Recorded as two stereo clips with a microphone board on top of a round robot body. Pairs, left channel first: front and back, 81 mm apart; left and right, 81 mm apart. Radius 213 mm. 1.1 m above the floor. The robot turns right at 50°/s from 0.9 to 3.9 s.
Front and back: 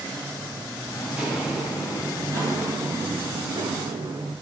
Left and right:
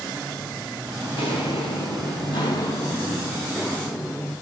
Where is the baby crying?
No baby crying in this recording.